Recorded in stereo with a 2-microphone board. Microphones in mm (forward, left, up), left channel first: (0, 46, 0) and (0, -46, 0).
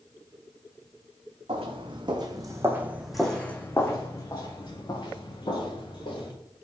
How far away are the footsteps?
About 1.0 m.